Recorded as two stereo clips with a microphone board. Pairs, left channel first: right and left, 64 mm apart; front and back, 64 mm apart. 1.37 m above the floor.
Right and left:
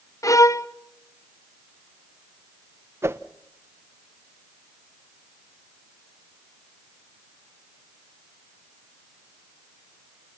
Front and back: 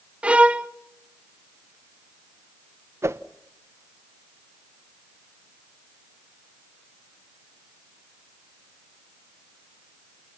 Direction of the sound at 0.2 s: 110° right.